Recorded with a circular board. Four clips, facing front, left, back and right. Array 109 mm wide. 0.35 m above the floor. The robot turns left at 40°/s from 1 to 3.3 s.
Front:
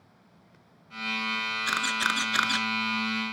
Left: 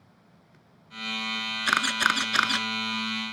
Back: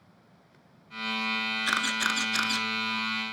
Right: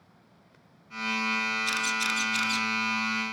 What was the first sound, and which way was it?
A camera shutter, 100° left.